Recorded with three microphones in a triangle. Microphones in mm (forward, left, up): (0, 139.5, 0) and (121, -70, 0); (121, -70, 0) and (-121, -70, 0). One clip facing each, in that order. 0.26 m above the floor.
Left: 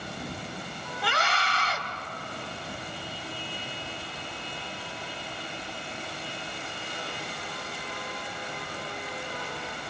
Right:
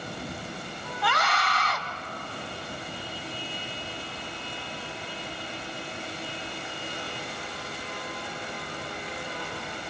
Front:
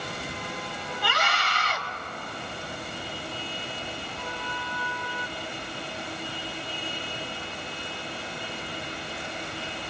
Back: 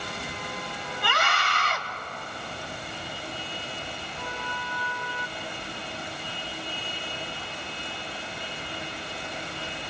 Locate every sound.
1.0 s a scream: 170° left, 2 m